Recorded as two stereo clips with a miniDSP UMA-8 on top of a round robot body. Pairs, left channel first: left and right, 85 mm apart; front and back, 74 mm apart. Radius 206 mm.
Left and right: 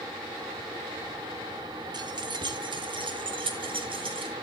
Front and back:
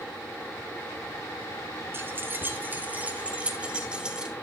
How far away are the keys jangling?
About 2.5 m.